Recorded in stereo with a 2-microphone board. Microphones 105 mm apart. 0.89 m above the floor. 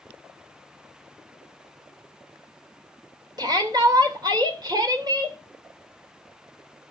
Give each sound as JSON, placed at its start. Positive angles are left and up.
{"t": 3.4, "sound": "a shout", "side_deg": -40, "distance_m": 3.0}